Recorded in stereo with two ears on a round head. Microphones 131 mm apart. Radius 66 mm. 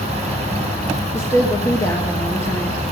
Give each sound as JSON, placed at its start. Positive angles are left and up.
{"t": 1.1, "sound": "a woman speaking", "side_deg": 15, "distance_m": 1.2}